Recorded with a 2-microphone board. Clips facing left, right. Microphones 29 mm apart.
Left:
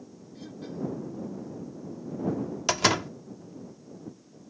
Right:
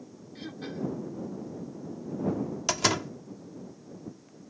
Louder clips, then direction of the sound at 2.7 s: Left 3 dB; 10° left (ahead or behind).